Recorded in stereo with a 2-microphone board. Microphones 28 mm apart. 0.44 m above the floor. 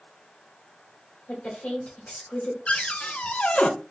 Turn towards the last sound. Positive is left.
turn(degrees=45)  # may be behind; listen again after turning